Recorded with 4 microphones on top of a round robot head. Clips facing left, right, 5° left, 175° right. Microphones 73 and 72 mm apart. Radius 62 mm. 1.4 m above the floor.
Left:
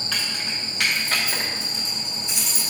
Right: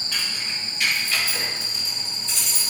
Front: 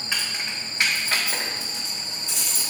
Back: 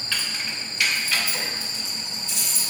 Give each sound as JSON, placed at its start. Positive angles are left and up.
{"t": 0.1, "sound": "keys jangling", "azimuth_deg": 80, "distance_m": 2.5}